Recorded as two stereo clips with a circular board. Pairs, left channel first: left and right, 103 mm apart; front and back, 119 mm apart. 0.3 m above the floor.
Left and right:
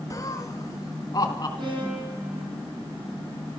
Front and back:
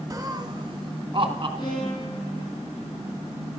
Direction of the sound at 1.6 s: 50° right.